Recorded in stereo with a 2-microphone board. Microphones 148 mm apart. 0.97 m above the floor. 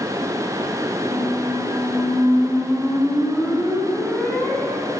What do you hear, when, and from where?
1.1 s a squeak: 10° left (ahead or behind), 4 m